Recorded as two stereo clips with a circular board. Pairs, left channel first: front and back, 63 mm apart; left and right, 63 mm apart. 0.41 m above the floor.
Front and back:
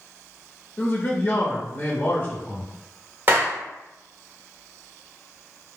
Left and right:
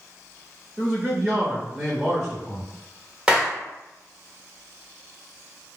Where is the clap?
155° right, 1.1 m.